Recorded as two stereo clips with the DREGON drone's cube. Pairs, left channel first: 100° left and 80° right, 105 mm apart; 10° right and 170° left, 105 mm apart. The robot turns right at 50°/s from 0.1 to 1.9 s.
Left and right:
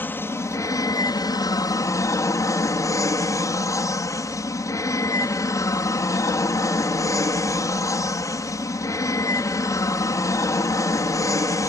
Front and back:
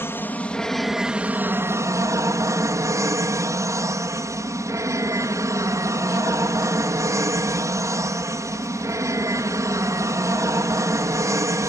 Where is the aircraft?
40° left; by 11.7 s 130° left.